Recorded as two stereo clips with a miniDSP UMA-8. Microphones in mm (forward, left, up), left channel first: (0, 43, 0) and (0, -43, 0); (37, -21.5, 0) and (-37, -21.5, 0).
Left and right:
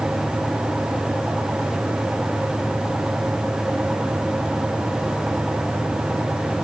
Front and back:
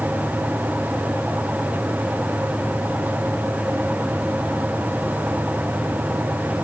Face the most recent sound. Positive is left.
No sound to turn to.